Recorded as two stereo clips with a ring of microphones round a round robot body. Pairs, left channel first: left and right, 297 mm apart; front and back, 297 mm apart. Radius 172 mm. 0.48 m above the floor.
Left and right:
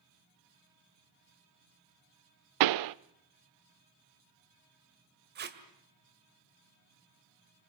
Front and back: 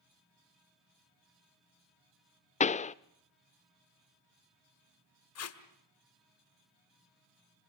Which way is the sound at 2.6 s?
70° right.